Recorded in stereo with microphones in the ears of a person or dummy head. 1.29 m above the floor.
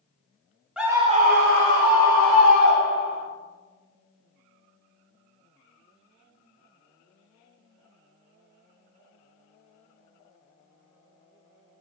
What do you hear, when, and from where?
0.8 s a scream: 5° right (ahead or behind), 0.6 m; by 3.2 s 75° right (ahead or behind), 1.8 m